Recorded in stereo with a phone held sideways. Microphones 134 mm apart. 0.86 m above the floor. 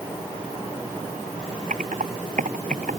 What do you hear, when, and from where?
1.7 s typing on a keyboard: 80° right